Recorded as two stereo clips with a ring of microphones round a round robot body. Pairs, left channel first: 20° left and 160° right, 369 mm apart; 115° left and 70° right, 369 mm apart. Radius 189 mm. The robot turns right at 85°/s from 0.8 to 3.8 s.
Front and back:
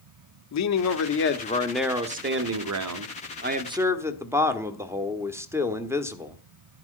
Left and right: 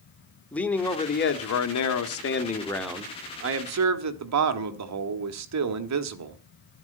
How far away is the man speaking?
About 1.4 m.